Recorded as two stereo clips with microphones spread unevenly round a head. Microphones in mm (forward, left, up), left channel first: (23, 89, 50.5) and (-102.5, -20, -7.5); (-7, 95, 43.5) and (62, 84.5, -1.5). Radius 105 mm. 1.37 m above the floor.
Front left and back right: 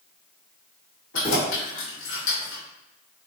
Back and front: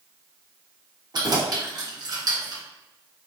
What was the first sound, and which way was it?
Keys jangling, 15° left.